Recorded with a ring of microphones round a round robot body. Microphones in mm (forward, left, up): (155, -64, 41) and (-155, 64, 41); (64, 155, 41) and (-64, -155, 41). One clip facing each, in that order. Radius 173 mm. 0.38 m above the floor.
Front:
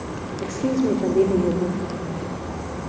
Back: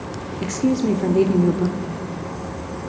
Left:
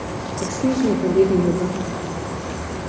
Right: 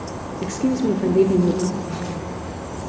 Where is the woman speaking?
170° left, 1.5 m.